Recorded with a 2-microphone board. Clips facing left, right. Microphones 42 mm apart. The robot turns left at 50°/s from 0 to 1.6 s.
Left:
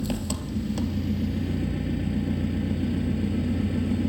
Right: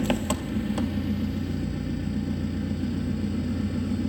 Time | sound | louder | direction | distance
0.0 | an engine running | right 4 dB | 120° right | 0.8 m